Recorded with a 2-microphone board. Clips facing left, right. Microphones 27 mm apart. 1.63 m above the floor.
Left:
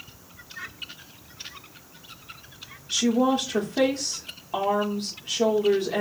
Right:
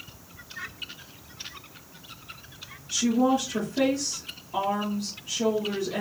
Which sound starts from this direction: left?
A woman speaking, at 2.9 s.